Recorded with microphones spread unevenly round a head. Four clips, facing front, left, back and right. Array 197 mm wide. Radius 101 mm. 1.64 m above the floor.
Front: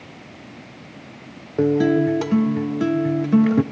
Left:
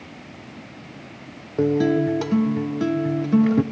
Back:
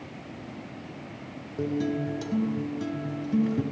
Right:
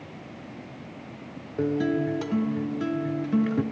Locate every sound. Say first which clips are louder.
1.6 s a guitar: left 6 dB, front 11 dB; 35° left, 0.6 m